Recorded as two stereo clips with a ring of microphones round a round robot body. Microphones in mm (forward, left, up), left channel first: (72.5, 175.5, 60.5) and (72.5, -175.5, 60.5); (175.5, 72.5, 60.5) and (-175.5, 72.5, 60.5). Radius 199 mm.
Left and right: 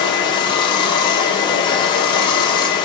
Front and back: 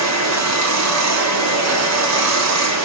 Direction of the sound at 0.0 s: 165° left.